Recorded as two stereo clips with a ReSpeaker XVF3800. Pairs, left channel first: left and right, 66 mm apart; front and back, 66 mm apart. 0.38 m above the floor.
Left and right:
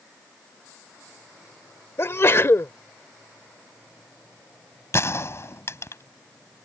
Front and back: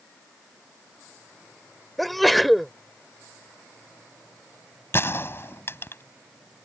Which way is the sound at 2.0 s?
90° left.